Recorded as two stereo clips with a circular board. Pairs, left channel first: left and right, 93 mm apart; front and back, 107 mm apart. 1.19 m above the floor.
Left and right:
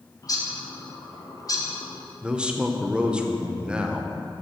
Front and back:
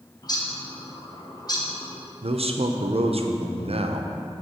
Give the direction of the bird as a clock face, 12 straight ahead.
10 o'clock.